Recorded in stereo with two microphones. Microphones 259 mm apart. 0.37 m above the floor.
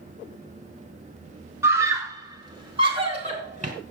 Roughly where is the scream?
Centre.